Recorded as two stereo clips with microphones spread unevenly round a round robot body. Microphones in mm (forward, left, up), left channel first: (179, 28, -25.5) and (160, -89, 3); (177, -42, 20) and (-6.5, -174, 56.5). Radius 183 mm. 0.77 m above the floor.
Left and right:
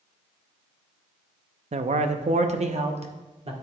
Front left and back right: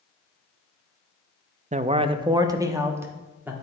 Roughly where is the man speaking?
Right.